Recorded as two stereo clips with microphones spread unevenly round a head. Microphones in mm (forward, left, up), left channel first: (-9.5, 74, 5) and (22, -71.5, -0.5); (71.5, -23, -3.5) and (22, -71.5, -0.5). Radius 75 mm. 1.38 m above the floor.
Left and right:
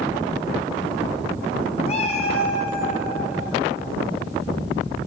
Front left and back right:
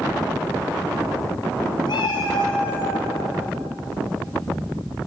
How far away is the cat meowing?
About 3.5 m.